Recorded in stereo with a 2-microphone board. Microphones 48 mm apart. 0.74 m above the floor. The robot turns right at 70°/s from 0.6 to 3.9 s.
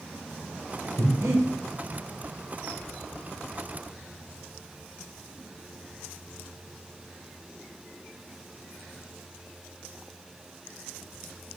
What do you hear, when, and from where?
1.0 s breathing: 65° right (ahead or behind), 1.8 m; by 1.4 s 80° right, 1.8 m